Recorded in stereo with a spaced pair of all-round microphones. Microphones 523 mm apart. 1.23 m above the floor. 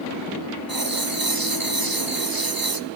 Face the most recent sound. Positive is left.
turn(degrees=-40)  # may be behind; listen again after turning